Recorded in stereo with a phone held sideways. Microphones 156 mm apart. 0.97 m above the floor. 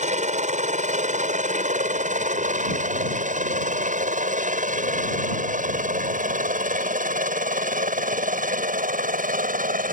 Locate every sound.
0.0 s a helicopter: 50° right (ahead or behind); by 9.9 s 60° right (ahead or behind)